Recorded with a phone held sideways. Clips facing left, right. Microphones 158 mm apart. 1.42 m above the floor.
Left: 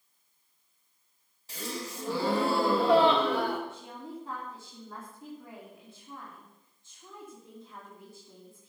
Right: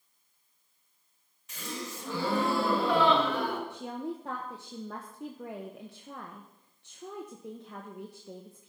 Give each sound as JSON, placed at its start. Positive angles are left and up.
{"t": 1.5, "sound": "a gasp", "side_deg": 35, "distance_m": 2.0}
{"t": 3.7, "sound": "a woman speaking", "side_deg": -75, "distance_m": 1.1}